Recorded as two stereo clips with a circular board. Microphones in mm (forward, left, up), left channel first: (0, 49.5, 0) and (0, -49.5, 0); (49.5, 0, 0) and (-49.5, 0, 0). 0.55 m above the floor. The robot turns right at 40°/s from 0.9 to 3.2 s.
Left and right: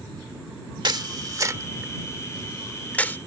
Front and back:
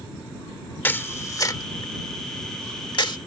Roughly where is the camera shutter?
Ahead right.